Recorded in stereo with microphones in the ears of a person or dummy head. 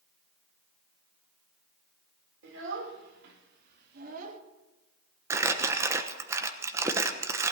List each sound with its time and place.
2.4 s a child speaking: 80° right, 3.5 m; by 4.4 s 45° right (ahead or behind), 1.5 m
5.3 s crumpling: 15° right (ahead or behind), 1.0 m